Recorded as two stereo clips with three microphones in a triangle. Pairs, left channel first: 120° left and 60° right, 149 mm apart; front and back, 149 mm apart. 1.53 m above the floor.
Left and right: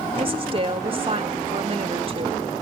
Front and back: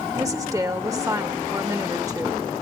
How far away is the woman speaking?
About 2 m.